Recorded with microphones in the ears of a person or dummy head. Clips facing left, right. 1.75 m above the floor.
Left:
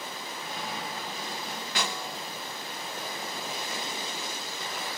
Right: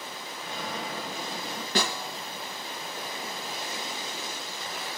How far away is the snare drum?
About 2.5 m.